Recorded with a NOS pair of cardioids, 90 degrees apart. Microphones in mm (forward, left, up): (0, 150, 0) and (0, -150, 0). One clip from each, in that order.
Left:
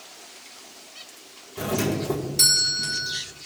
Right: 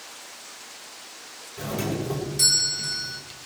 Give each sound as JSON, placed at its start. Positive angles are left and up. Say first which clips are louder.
{"t": 1.6, "sound": "a doorbell", "louder": "left 4 dB", "azimuth_deg": 40, "distance_m": 3.5}